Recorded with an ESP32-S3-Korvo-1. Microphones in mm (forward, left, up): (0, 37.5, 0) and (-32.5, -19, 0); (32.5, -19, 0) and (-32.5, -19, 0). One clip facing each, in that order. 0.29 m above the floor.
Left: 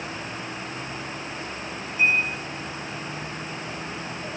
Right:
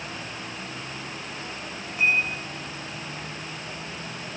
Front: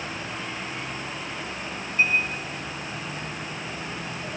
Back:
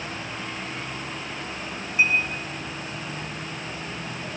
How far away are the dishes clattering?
About 9.5 m.